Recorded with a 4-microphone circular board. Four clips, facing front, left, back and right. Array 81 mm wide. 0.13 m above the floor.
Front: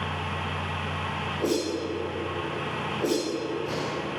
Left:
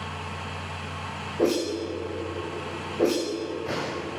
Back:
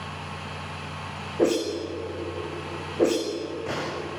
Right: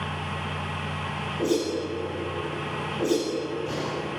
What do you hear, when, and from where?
1.4 s a whoosh: 150° left, 9 m